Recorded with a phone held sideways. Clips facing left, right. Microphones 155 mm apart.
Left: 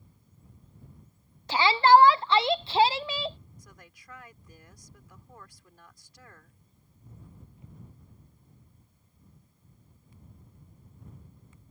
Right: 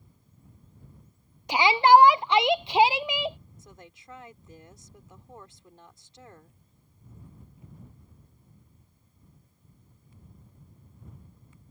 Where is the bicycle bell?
No bicycle bell in this recording.